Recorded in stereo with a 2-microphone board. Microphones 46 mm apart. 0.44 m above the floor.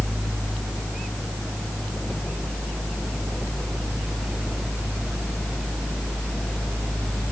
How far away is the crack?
No crack in this recording.